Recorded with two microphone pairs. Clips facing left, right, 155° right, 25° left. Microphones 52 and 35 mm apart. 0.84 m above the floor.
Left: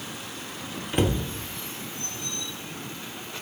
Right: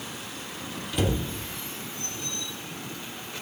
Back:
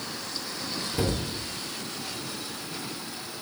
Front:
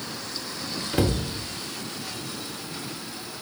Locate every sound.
0.9 s a cupboard door: 45° left, 1.4 m